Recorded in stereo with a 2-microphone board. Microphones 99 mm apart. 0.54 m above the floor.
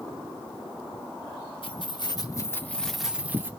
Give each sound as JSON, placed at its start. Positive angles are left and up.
{"t": 1.6, "sound": "keys jangling", "side_deg": 60, "distance_m": 0.8}